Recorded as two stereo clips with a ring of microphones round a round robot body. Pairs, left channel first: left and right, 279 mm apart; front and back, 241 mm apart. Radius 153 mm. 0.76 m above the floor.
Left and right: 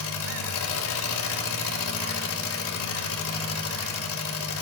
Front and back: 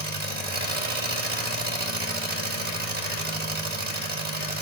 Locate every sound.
0.0 s an engine running: 130° left, 2.0 m